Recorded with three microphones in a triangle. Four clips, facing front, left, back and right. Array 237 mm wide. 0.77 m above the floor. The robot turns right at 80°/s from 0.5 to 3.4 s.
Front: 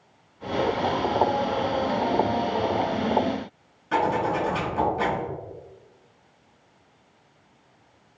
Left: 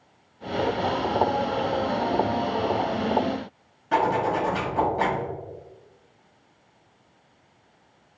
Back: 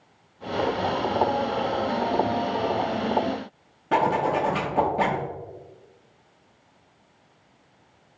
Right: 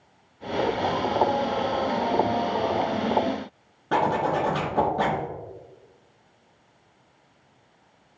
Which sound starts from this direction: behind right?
A zipper, at 3.9 s.